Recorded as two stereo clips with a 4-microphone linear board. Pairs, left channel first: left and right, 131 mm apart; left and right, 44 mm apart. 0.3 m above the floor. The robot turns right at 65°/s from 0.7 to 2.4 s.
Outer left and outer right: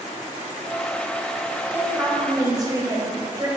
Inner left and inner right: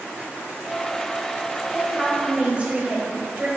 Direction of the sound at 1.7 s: 160° right.